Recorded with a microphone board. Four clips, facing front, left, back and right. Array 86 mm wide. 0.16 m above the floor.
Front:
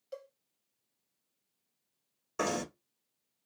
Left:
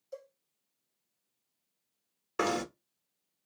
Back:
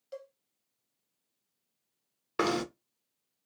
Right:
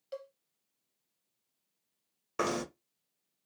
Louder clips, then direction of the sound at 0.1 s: Right 3 dB, back 1 dB; 95° right.